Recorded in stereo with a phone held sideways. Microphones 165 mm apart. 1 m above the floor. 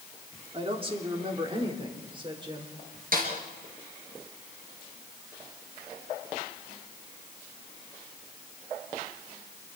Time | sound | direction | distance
0.5 | a woman speaking | 35° right (ahead or behind) | 3 m
3.1 | a snare drum | 60° right (ahead or behind) | 4 m